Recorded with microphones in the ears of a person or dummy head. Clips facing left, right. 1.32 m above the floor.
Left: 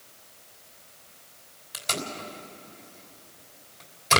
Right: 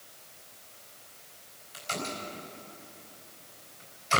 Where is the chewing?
I don't hear chewing.